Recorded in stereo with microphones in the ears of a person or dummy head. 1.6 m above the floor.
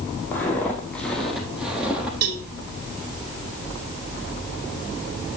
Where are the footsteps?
10° left (ahead or behind), 4.5 m; by 2.1 s 10° right (ahead or behind), 4 m.